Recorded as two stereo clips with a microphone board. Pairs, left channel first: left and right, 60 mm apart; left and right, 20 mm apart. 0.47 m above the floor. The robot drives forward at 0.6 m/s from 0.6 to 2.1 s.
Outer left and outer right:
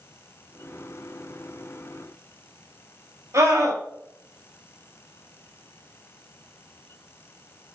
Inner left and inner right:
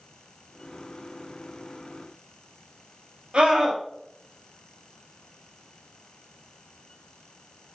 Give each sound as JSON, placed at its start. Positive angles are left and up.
{"t": 3.3, "sound": "a scream", "side_deg": -65, "distance_m": 3.0}